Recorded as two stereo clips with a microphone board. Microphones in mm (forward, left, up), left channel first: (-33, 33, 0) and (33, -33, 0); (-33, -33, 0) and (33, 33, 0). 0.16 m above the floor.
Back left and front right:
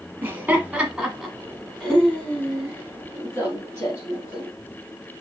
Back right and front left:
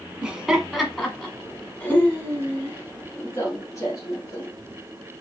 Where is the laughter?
20° right, 1.3 m; by 4.5 s straight behind, 2 m.